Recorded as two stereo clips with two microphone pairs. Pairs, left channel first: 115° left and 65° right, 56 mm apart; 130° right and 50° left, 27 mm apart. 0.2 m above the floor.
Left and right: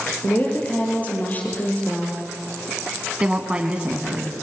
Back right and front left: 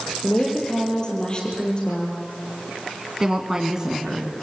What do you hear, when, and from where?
0.2 s a woman speaking: 175° left, 5.5 m
3.2 s a woman speaking: 5° right, 2 m